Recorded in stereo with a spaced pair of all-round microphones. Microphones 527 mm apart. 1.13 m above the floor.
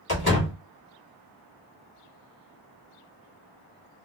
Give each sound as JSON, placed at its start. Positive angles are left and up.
{"t": 0.1, "sound": "a door slam", "side_deg": 45, "distance_m": 2.0}